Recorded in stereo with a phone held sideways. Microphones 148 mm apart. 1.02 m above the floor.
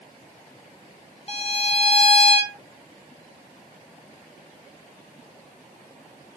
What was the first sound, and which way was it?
A violin, 45° left (ahead or behind).